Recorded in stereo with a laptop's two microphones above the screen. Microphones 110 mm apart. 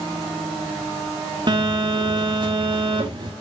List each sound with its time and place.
1.5 s a phone buzzing: 45° right (ahead or behind), 2.5 m